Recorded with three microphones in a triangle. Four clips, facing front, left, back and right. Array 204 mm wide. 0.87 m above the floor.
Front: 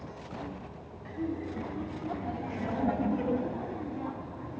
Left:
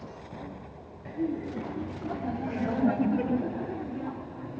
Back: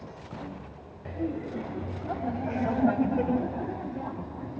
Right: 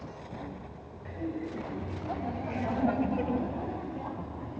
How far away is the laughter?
About 4.5 m.